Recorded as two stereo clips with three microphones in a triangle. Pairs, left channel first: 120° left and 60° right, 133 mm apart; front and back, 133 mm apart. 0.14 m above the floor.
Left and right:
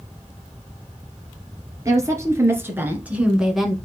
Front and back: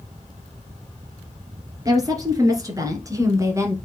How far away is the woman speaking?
About 2.5 m.